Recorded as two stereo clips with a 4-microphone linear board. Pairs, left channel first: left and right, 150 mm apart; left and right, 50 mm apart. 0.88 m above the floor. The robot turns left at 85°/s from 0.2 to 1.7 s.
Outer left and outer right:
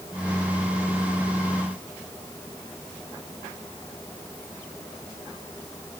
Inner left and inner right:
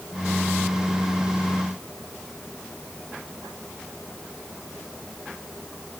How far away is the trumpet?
No trumpet in this recording.